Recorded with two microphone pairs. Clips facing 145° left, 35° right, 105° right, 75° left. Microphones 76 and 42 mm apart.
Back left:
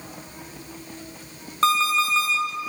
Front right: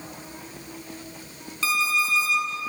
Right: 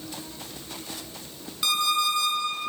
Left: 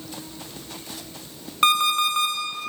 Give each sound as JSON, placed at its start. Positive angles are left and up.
{"t": 1.6, "sound": "an alarm clock", "azimuth_deg": 105, "distance_m": 1.9}